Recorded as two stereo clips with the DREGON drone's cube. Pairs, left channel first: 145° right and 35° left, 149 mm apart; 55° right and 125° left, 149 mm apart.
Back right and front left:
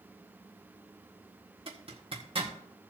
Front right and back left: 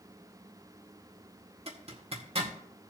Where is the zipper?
80° left, 1.8 m.